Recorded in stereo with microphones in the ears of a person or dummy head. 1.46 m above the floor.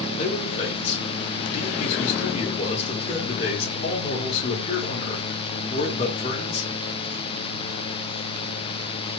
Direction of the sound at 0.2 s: 35° left (ahead or behind).